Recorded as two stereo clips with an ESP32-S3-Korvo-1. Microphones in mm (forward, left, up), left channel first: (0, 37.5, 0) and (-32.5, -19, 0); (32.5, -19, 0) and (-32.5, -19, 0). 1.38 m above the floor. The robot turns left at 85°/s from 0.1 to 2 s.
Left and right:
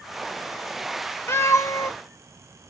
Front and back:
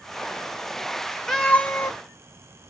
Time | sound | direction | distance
1.3 | a cat meowing | 85° left | 0.7 m